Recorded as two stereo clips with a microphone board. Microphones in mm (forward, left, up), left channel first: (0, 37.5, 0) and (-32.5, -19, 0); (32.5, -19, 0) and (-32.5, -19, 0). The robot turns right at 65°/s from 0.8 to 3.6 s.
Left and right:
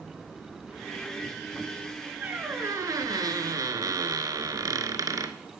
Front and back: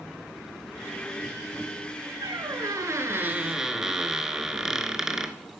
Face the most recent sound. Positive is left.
turn(degrees=-100)